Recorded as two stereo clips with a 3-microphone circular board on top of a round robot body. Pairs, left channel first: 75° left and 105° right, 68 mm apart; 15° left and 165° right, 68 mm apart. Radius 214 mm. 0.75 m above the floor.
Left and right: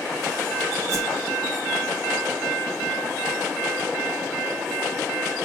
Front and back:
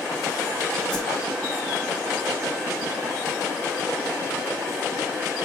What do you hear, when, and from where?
0.9 s a whoosh: 65° right, 3.5 m